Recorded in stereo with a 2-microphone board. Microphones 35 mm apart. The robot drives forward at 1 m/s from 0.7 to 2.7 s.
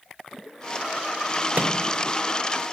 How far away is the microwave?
About 0.8 m.